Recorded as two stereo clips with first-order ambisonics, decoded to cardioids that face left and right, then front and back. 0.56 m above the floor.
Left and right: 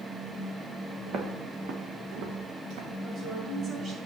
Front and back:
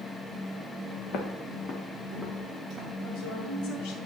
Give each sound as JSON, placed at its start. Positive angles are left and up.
{"t": 1.1, "sound": "footsteps", "azimuth_deg": -40, "distance_m": 1.8}
{"t": 3.0, "sound": "a woman speaking", "azimuth_deg": -25, "distance_m": 2.5}